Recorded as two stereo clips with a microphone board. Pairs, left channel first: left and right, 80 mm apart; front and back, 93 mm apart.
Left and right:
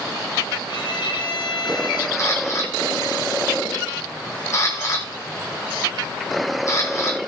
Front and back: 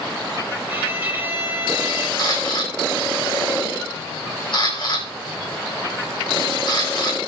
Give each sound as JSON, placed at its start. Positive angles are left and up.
{"t": 0.7, "sound": "a violin", "azimuth_deg": 115, "distance_m": 3.5}
{"t": 2.2, "sound": "a camera shutter", "azimuth_deg": 40, "distance_m": 8.0}